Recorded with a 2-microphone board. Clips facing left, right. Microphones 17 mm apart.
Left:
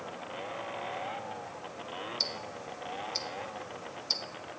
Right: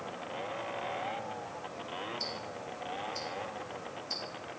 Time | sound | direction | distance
2.2 | ticking | 70° left (ahead or behind) | 0.7 m